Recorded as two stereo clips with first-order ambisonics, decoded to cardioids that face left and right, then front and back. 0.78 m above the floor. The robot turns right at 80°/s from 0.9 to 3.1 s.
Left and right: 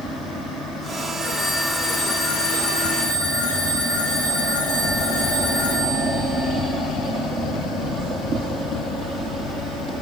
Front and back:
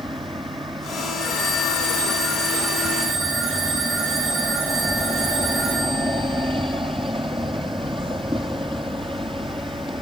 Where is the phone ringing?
25° right, 7 m; by 6.7 s 130° left, 7 m.